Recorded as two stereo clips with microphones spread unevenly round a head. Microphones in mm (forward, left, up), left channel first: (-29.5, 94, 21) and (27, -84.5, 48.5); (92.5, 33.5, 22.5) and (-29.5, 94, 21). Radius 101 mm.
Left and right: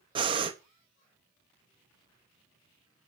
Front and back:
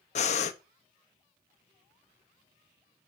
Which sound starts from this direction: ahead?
Breathing, at 0.1 s.